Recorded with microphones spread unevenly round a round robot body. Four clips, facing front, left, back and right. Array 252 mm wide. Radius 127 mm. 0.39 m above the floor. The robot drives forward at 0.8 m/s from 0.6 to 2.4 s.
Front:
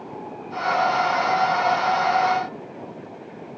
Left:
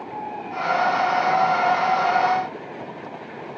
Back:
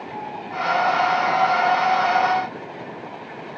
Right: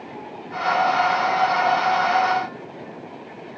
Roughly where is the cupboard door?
No cupboard door in this recording.